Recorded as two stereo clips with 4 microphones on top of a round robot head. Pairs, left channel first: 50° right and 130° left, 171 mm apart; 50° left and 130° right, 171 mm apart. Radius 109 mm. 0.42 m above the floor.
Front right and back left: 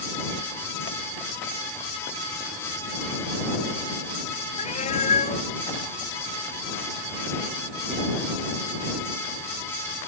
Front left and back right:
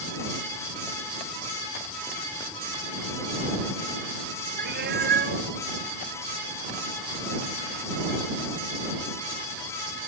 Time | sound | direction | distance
4.6 | a cat meowing | 100° right | ?